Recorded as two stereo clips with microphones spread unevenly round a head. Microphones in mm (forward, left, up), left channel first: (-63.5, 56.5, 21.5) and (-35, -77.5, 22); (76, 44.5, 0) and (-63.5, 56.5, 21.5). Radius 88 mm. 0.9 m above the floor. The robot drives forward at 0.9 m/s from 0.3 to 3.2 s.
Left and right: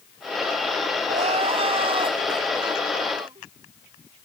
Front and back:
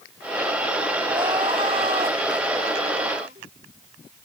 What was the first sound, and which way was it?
Crying, 120° right.